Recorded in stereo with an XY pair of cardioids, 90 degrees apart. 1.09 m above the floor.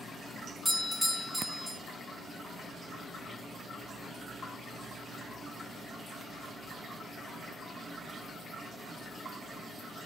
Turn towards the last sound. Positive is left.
turn(degrees=0)